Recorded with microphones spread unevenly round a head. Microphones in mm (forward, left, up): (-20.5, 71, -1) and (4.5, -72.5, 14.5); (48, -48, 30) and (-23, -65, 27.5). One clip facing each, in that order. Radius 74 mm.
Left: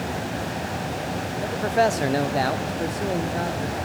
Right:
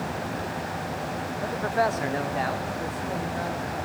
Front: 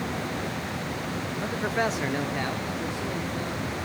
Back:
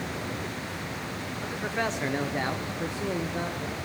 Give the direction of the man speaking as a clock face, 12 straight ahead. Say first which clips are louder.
Left 4 dB, front 3 dB; 11 o'clock.